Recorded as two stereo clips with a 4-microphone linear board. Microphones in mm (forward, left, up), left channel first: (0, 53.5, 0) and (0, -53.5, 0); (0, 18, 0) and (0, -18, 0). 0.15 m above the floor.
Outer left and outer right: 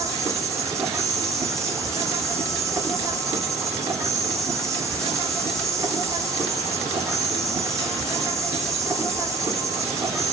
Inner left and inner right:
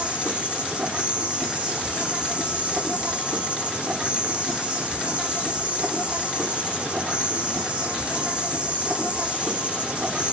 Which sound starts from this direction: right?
An insect, at 0.0 s.